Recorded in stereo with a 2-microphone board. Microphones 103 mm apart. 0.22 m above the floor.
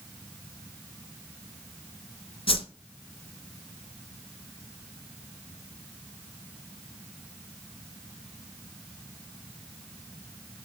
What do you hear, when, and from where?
2.5 s a whoosh: 60° left (ahead or behind), 0.8 m